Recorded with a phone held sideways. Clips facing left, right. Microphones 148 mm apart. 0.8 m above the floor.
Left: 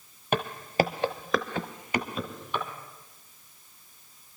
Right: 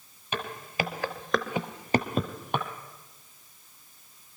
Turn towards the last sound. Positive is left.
turn(degrees=-60)  # may be behind; listen again after turning